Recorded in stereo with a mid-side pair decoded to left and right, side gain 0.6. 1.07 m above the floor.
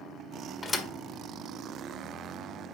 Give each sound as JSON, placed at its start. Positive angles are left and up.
{"t": 0.6, "sound": "a thud", "azimuth_deg": 25, "distance_m": 1.5}